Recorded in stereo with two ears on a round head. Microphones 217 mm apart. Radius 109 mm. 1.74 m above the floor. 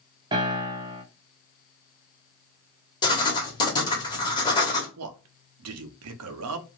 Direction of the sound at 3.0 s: 20° left (ahead or behind).